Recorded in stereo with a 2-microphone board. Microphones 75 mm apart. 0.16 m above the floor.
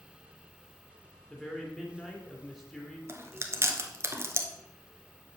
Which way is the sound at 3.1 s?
35° right (ahead or behind).